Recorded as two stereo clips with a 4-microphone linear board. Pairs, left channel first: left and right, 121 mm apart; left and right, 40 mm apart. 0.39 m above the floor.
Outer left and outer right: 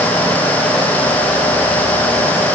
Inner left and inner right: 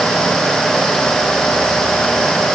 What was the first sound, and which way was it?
Only background noise.